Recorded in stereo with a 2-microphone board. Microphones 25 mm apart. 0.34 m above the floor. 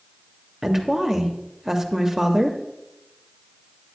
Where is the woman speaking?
20° right (ahead or behind), 0.8 m.